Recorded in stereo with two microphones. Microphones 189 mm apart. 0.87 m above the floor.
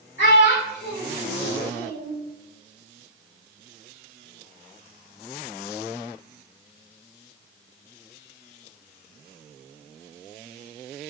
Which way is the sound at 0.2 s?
85° left.